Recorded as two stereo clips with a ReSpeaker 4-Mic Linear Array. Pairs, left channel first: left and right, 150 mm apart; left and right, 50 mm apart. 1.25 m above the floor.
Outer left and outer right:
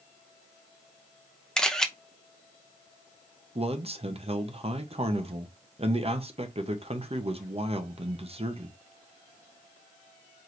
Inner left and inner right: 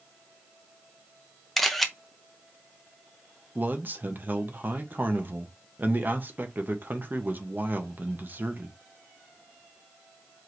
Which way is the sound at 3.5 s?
40° right (ahead or behind).